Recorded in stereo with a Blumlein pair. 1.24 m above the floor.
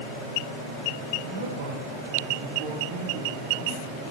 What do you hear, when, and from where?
1.2 s a man speaking: 70° right, 4 m; by 4.1 s 20° right, 4.5 m